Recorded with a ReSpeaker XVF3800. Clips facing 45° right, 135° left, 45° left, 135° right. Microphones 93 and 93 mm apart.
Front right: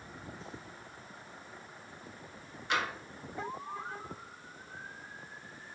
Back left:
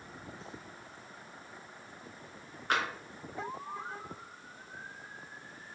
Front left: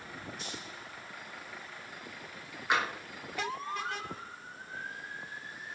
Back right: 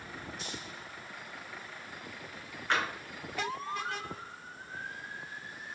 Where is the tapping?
120° left, 0.7 m.